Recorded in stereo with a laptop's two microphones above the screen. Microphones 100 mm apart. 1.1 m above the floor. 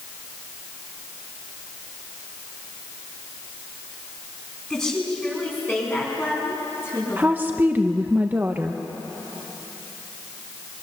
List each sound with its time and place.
4.7 s a woman speaking: 10° left (ahead or behind), 9.5 m; by 7.7 s 30° left (ahead or behind), 10 m
7.2 s a woman speaking: 20° right (ahead or behind), 0.6 m